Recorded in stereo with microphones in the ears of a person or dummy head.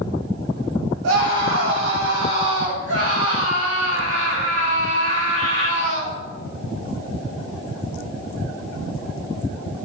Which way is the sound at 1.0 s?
80° right.